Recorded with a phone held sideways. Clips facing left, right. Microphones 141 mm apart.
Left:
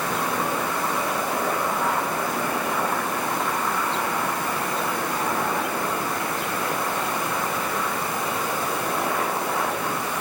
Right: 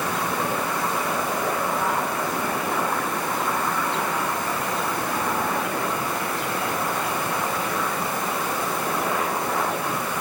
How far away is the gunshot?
No gunshot in this recording.